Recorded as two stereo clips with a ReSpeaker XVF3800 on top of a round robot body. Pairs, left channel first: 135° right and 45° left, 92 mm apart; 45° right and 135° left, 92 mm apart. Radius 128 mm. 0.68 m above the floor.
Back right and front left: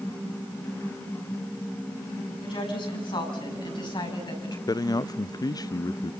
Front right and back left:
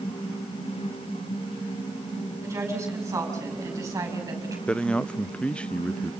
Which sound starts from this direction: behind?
A woman speaking, at 2.4 s.